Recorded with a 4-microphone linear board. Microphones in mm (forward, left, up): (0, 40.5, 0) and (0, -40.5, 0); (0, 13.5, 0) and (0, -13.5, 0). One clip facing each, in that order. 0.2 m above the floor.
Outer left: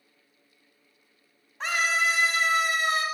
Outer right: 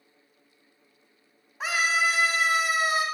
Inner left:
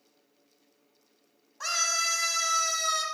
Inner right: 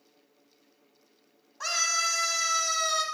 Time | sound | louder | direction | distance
1.6 | a scream | outer right 1 dB, inner right 1 dB | 10° right (ahead or behind) | 1.3 m